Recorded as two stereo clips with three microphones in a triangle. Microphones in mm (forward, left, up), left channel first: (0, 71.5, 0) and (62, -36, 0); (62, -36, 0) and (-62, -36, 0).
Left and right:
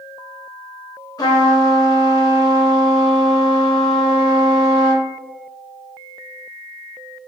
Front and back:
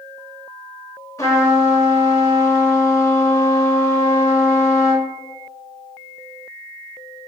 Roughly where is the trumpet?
Ahead left.